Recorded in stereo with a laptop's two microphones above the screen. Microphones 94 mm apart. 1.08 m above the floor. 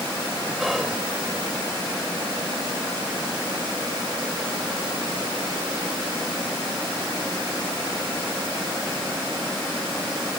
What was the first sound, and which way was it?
Whispering, 5° right (ahead or behind).